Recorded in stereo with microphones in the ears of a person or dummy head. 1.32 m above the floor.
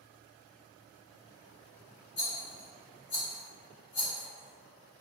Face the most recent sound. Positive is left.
turn(degrees=30)  # may be behind; listen again after turning